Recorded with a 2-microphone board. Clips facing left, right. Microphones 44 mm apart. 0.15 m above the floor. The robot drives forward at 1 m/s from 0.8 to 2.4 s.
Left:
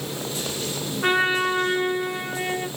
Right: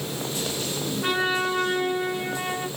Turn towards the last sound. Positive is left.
turn(degrees=15)  # may be behind; listen again after turning